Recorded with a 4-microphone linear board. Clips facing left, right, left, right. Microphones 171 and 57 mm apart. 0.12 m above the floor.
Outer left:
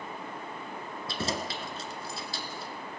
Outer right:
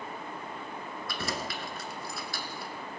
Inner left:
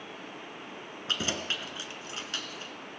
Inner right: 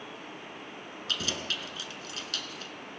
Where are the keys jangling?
25° left (ahead or behind), 1.0 m.